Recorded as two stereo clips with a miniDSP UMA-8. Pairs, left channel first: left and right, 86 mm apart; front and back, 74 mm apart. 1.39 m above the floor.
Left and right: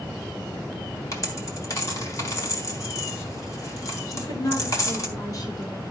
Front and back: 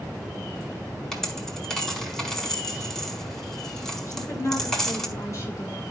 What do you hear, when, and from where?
1.1 s a dropped coin: 80° left, 1.3 m
4.1 s a woman speaking: 55° left, 5 m